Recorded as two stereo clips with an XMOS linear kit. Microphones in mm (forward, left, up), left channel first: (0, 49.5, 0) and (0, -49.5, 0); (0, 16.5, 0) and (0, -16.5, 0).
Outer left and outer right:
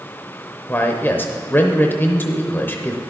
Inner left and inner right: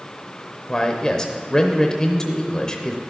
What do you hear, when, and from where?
0.7 s a man speaking: 20° left (ahead or behind), 0.7 m